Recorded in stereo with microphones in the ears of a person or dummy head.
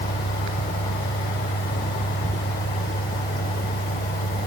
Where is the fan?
45° left (ahead or behind), 1.6 m.